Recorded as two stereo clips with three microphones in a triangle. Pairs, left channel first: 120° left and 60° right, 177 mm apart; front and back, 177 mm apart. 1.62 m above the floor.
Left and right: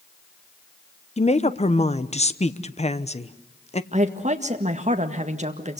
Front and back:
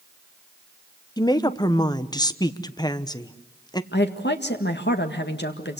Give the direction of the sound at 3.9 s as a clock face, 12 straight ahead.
12 o'clock.